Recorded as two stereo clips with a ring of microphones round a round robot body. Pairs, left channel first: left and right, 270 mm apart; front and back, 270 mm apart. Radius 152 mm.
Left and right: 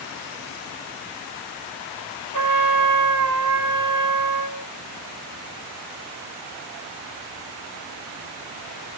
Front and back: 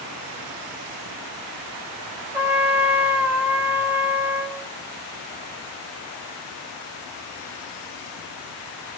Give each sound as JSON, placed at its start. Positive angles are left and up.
{"t": 2.3, "sound": "a trumpet", "azimuth_deg": -95, "distance_m": 1.6}